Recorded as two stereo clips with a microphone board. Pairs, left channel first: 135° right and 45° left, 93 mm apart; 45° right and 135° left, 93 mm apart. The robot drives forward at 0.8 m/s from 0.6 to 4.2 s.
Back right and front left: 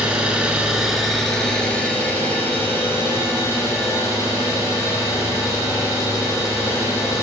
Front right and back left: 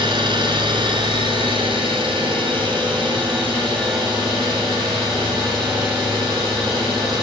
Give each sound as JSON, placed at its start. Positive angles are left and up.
{"t": 0.0, "sound": "an engine running", "azimuth_deg": 125, "distance_m": 1.4}